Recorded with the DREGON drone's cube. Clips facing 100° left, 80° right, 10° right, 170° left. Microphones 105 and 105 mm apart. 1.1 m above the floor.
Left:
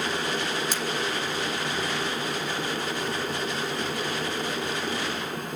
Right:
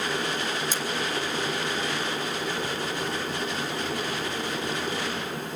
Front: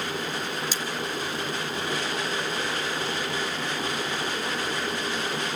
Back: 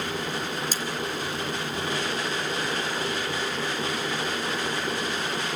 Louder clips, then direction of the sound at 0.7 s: Even, even; 125° left.